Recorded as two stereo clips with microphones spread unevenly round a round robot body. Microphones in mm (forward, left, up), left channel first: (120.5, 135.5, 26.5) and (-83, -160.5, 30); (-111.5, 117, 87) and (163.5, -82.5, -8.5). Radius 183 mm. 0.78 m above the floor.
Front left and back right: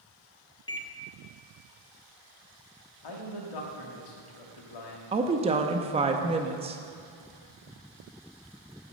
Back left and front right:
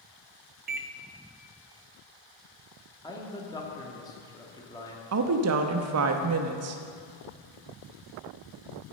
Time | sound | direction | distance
0.7 | a microwave | 15° right | 0.6 m
3.0 | a man speaking | 60° left | 1.8 m
5.1 | a woman speaking | 50° right | 0.7 m